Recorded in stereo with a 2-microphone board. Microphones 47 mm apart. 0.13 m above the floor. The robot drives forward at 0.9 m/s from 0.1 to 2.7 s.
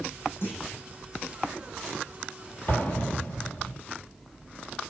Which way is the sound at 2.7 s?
45° left (ahead or behind).